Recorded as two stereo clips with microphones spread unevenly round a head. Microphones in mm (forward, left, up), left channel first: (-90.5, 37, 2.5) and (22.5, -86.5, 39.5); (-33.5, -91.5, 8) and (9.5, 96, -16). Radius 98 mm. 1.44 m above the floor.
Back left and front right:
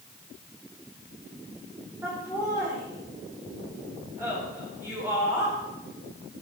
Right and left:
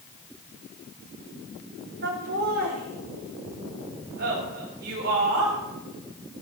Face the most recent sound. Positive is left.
turn(degrees=30)